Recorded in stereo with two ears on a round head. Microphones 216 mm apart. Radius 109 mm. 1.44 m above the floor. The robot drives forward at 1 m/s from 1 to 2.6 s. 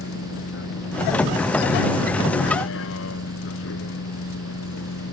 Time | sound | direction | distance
0.0 | a vehicle | 50° left (ahead or behind) | ?